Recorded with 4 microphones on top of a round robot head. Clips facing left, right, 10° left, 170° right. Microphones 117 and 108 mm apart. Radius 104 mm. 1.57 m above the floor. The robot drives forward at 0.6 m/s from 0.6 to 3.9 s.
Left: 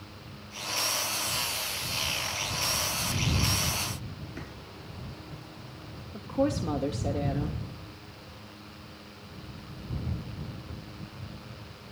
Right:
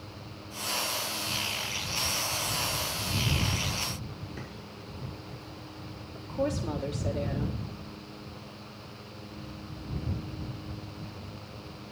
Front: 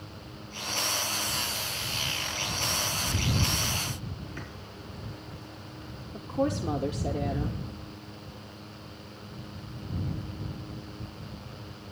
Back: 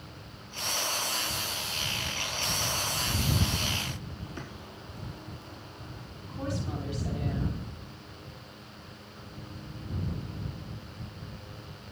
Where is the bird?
125° left, 5.5 m.